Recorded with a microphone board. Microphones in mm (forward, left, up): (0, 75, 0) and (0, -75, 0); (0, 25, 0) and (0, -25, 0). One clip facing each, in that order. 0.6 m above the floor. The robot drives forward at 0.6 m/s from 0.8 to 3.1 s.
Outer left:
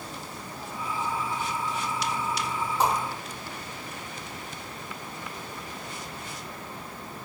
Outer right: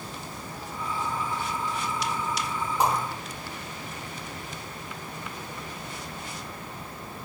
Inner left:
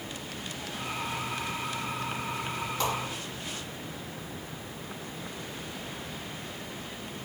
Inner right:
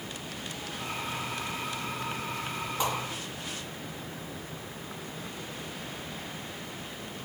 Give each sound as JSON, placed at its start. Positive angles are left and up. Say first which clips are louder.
{"t": 2.8, "sound": "a whoosh", "louder": "even, even", "side_deg": -15, "distance_m": 1.3}